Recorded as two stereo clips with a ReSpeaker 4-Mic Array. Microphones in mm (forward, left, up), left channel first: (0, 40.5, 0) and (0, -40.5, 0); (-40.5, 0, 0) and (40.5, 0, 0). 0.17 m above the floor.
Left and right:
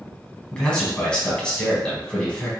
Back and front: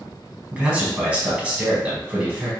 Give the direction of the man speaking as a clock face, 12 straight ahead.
11 o'clock.